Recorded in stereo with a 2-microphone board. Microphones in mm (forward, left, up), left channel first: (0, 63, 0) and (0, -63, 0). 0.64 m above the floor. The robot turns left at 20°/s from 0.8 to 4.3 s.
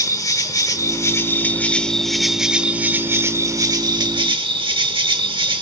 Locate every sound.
0.0 s an insect: 30° left, 1.0 m; by 5.6 s 40° right, 1.0 m